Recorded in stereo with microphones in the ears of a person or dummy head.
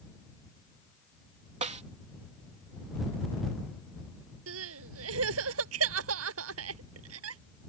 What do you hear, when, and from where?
1.6 s a snare drum: 35° right (ahead or behind)
4.5 s crying: 80° right